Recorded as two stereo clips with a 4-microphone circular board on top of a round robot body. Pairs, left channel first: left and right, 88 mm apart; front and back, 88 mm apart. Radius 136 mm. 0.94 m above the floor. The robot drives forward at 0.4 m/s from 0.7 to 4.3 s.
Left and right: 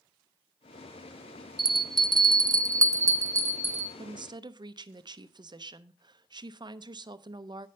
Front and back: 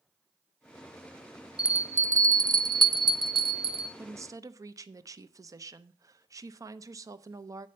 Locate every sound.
1.6 s a bell: 100° right, 0.5 m; by 3.9 s 155° right, 1.1 m
4.0 s a woman speaking: 115° right, 0.6 m; by 7.7 s 125° right, 0.7 m